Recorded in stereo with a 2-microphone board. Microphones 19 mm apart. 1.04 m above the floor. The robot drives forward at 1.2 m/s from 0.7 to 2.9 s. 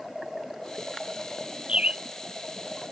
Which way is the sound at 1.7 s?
80° right.